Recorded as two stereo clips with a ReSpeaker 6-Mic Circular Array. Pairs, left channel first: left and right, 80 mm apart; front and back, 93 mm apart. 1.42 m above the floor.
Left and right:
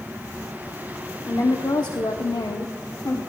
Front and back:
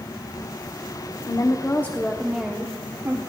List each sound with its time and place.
1.3 s a woman speaking: 40° left, 1.0 m; by 3.2 s 125° left, 1.2 m